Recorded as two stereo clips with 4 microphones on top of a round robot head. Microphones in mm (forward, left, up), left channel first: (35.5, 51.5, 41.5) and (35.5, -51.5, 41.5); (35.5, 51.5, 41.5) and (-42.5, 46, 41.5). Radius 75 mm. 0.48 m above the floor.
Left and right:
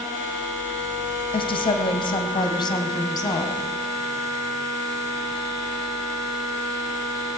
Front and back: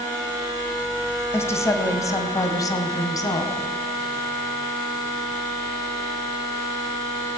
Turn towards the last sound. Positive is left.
turn(degrees=40)